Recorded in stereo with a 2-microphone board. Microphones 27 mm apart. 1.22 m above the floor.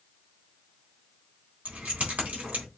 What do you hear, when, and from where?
1.6 s keys jangling: 70° right (ahead or behind), 3 m